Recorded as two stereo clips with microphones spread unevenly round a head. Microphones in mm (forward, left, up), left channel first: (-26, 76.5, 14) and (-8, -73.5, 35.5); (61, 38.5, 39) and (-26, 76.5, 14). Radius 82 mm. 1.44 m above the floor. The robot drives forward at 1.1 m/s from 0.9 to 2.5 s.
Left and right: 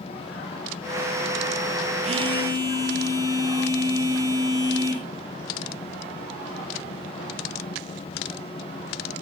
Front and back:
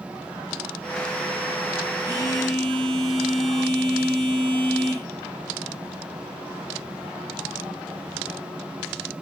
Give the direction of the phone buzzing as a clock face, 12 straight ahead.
4 o'clock.